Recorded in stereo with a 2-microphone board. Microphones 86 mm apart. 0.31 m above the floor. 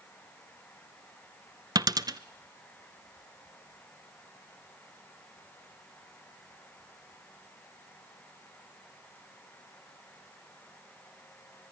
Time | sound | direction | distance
1.8 | a dropped coin | 50° right (ahead or behind) | 0.7 m